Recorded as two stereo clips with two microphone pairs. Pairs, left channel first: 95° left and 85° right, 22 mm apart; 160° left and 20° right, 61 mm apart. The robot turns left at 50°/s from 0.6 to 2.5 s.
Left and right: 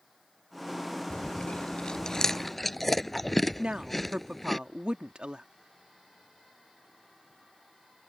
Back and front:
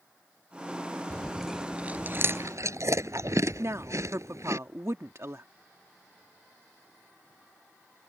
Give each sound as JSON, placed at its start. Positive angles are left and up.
{"t": 1.1, "sound": "chewing", "azimuth_deg": 85}
{"t": 3.6, "sound": "a woman speaking", "azimuth_deg": -50}